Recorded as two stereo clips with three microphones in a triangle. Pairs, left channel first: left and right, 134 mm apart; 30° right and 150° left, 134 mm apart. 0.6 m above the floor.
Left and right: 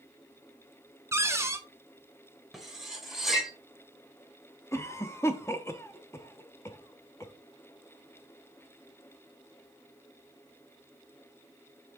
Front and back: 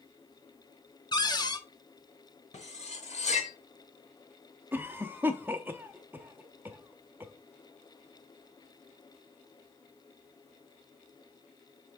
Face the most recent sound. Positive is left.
turn(degrees=105)